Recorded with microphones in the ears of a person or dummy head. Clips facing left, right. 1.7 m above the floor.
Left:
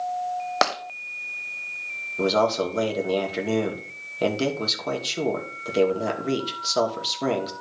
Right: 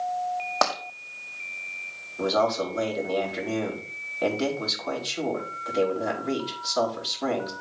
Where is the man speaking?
50° left (ahead or behind), 2.5 m.